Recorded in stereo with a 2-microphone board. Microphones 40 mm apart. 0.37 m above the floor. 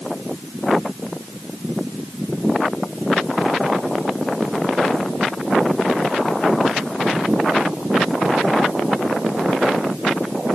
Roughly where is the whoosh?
I don't hear a whoosh.